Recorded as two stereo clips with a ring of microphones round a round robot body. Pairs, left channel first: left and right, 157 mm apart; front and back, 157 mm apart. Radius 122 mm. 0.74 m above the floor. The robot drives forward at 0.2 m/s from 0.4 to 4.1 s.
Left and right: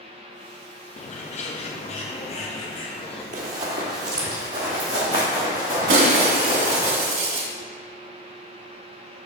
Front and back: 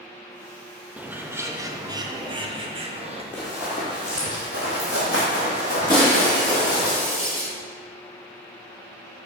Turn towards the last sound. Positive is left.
turn(degrees=-70)